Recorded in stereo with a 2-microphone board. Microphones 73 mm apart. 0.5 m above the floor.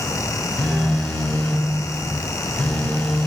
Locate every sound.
0.6 s a phone buzzing: 15° left (ahead or behind), 0.6 m